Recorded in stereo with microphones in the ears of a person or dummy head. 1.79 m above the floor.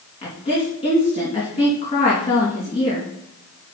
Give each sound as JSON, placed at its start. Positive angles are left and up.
{"t": 0.2, "sound": "a woman speaking", "side_deg": 30, "distance_m": 2.5}